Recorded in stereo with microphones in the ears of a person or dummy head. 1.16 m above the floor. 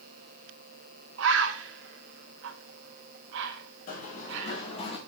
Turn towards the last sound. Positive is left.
turn(degrees=35)  # may be behind; listen again after turning